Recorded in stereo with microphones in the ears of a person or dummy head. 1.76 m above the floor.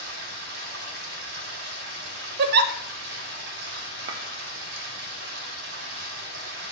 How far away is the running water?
About 1.7 m.